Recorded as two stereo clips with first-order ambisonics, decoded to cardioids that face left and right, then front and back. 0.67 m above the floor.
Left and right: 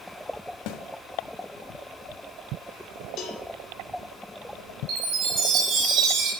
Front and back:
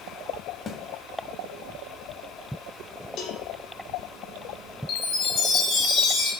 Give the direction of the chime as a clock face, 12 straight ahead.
2 o'clock.